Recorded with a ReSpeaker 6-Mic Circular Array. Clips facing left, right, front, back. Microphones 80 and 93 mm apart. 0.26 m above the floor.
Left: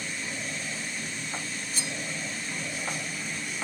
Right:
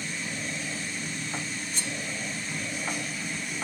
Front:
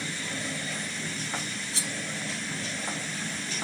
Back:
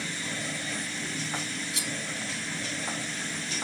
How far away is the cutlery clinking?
About 0.5 m.